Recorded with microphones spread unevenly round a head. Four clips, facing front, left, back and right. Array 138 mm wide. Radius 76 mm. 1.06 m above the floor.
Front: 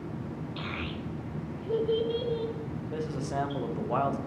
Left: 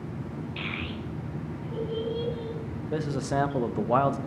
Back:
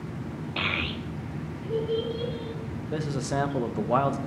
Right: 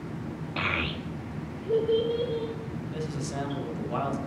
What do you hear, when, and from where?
0.6 s a child speaking: 135° right, 0.7 m; by 2.5 s 45° right, 1.8 m
2.9 s a man speaking: 145° left, 0.9 m